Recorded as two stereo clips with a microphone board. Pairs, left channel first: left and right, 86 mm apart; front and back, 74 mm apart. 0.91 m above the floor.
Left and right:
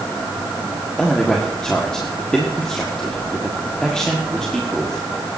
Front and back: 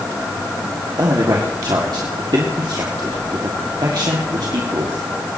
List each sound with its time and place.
1.0 s a man speaking: 170° left, 1.9 m